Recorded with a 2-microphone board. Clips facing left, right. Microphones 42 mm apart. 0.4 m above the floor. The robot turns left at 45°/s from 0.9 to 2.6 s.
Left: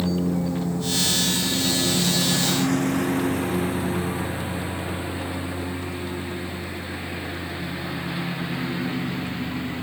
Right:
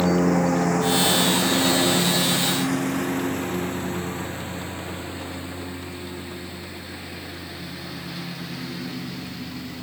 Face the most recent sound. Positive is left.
turn(degrees=30)  # may be behind; listen again after turning